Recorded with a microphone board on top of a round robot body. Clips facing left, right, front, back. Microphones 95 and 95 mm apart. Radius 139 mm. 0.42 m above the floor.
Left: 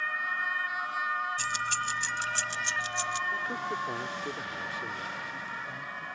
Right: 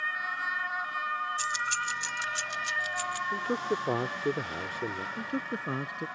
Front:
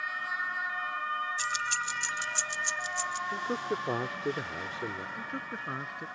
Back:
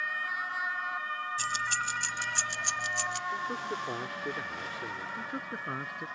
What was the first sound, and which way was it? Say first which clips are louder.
Keys jangling: even, even; 130° left.